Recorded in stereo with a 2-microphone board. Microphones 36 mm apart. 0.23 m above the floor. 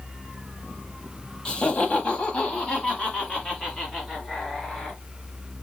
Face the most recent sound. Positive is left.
turn(degrees=20)  # may be behind; listen again after turning